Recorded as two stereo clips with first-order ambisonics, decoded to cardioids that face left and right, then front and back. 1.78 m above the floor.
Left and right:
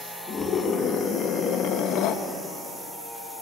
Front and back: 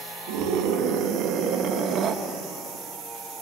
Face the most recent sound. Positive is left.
turn(degrees=125)